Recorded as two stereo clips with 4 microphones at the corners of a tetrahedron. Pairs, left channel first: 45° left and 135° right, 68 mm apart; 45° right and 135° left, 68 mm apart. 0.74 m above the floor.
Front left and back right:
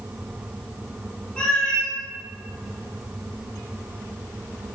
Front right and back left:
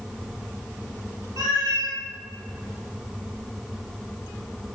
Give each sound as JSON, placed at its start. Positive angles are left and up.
{"t": 1.4, "sound": "a cat meowing", "azimuth_deg": 120, "distance_m": 1.0}